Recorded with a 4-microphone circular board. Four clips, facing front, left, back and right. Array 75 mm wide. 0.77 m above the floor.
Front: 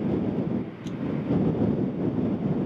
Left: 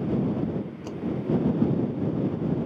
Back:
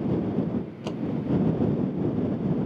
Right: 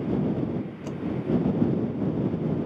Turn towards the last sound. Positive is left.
turn(degrees=-175)